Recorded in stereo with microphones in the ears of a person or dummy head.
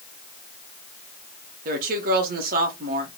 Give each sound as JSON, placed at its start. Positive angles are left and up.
{"t": 1.6, "sound": "a woman speaking", "side_deg": -55, "distance_m": 1.4}